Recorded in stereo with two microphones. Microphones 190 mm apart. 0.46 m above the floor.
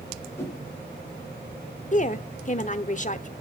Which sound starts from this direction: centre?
A whoosh, at 0.4 s.